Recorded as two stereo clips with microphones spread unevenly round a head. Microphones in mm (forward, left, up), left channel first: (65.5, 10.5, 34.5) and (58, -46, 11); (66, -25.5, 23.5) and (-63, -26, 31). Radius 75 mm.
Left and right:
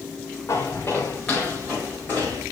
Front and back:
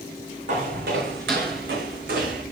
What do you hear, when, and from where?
0.5 s footsteps: 145° left, 3 m; by 2.4 s 170° right, 3.5 m